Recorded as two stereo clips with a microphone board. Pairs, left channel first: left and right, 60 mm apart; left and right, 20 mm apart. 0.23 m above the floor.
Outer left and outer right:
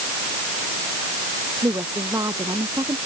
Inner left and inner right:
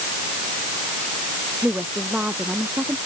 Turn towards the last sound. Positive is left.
turn(degrees=-75)  # may be behind; listen again after turning